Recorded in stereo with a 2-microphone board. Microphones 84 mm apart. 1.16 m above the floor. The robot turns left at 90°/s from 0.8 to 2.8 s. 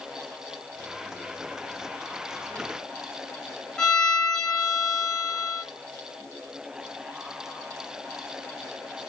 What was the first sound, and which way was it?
A violin, 5° left (ahead or behind).